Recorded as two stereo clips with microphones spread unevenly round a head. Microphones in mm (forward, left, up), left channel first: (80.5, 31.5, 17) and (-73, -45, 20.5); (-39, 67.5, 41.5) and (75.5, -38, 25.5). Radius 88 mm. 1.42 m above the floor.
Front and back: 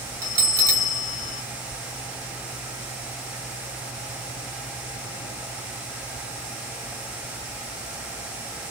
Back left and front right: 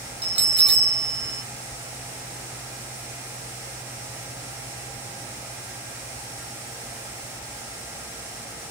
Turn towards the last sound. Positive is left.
turn(degrees=-90)